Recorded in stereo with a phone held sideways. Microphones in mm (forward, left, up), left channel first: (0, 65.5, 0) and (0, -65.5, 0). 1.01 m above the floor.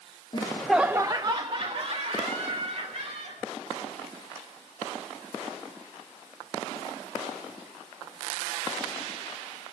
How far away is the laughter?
About 0.6 m.